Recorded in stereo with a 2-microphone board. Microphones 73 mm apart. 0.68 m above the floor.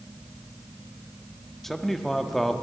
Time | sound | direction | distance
1.6 | a man speaking | 5° left (ahead or behind) | 0.9 m